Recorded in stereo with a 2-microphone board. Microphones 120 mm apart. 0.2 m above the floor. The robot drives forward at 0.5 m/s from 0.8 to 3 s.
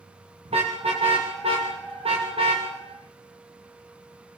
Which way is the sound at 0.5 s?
55° right (ahead or behind).